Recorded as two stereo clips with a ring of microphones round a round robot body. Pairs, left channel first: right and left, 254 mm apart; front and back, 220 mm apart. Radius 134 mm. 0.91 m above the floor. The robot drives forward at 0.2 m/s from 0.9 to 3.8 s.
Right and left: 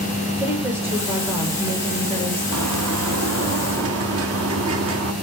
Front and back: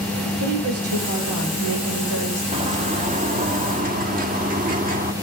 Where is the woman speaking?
170° left, 4 m; by 2.4 s 175° left, 4 m.